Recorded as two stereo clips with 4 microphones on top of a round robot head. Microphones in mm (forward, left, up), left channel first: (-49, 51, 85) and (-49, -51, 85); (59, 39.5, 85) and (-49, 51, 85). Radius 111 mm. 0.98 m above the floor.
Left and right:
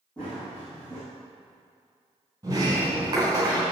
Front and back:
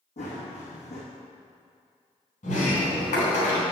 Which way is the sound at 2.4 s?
25° right.